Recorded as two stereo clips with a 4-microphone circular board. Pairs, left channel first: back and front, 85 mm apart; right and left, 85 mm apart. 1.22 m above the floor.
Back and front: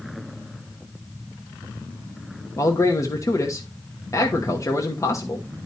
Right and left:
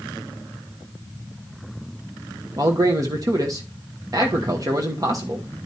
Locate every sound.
2.6 s a man speaking: 135° left, 1.0 m